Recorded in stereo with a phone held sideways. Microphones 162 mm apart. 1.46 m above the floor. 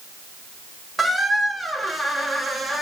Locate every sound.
1.0 s a squeak: centre (ahead or behind), 0.7 m